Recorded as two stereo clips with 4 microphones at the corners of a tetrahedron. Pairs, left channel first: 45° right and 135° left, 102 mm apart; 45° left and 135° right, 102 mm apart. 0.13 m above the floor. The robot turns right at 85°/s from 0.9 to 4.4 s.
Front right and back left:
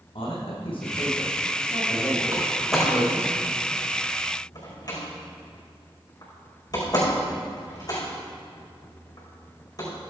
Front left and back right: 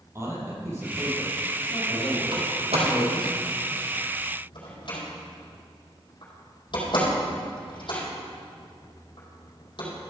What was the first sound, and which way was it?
A man speaking, 70° right.